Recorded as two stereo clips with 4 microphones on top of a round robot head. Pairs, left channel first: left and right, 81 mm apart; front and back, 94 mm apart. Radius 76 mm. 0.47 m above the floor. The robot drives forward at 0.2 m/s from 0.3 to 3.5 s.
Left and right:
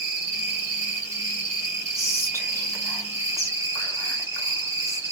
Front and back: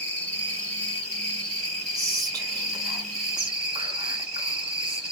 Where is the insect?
55° right, 1.7 m; by 5.1 s 95° right, 1.6 m.